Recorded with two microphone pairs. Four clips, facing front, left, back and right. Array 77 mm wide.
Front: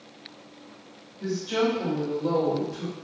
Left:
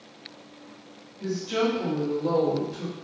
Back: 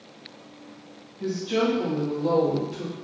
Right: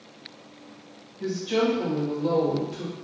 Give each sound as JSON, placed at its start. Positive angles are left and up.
{"t": 1.2, "sound": "a woman speaking", "azimuth_deg": -70, "distance_m": 1.5}